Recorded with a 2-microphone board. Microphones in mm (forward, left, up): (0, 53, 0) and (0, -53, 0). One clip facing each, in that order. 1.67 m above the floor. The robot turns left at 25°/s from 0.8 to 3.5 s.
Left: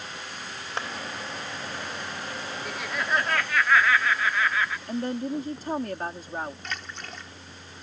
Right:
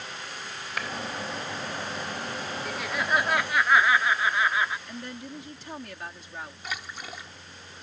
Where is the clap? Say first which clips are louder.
Left 1 dB; 30° left (ahead or behind).